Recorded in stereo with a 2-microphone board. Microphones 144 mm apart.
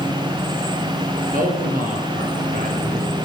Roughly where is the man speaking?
Right.